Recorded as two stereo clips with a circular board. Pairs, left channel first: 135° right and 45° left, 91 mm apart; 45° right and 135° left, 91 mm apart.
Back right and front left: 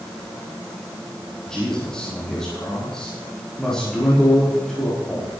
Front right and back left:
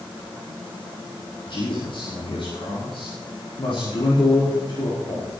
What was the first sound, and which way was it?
A man speaking, 50° right.